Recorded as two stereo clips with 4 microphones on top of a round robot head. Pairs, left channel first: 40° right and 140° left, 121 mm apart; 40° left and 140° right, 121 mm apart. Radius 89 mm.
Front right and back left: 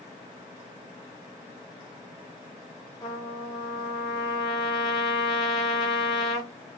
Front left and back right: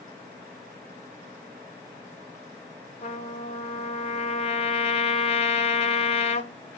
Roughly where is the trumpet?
Ahead.